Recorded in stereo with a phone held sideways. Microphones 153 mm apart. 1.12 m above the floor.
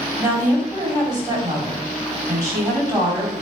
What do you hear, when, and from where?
0.2 s a woman speaking: 25° right (ahead or behind), 3.5 m